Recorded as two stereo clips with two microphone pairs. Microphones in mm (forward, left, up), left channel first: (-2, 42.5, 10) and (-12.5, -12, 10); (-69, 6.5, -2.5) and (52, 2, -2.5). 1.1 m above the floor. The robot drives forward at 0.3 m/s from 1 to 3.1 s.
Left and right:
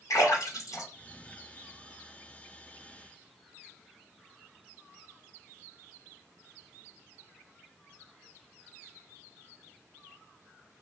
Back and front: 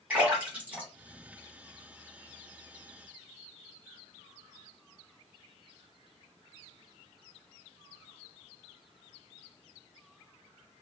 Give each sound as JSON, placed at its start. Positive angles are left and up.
{"t": 0.1, "sound": "a splash", "azimuth_deg": 75, "distance_m": 1.2}